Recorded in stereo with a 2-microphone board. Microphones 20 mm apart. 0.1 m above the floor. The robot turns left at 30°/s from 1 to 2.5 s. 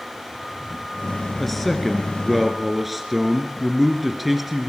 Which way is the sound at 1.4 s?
10° left (ahead or behind).